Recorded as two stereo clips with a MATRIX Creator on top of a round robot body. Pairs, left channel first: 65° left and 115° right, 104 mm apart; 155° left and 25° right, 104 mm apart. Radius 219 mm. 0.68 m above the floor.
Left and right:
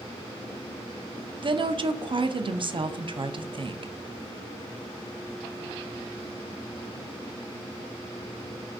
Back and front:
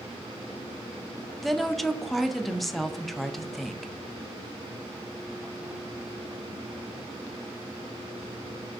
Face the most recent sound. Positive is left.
turn(degrees=-115)